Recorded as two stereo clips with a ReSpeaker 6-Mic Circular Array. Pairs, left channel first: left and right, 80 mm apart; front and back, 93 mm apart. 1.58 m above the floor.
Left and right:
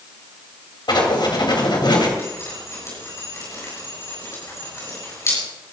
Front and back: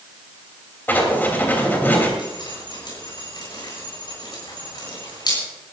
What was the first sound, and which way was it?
Writing, 70° left.